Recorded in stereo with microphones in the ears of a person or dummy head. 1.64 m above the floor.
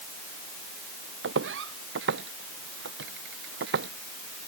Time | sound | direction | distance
1.2 | footsteps | 80° right | ?